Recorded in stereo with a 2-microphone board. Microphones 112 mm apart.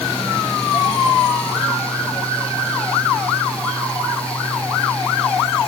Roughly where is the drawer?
I don't hear a drawer.